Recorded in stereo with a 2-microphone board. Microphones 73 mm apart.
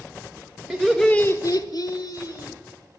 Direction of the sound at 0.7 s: 10° right (ahead or behind).